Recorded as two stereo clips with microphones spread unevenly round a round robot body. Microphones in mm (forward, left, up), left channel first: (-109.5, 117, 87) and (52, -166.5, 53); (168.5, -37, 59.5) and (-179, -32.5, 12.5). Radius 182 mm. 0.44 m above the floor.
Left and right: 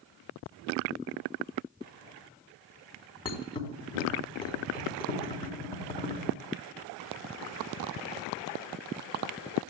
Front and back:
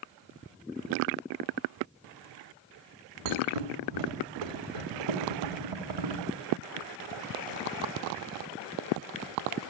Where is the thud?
165° right, 2.0 m.